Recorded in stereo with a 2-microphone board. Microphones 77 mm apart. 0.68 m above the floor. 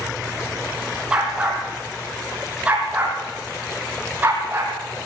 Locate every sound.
1.1 s a dog barking: 10° right (ahead or behind), 5.5 m; by 4.8 s 25° right (ahead or behind), 7 m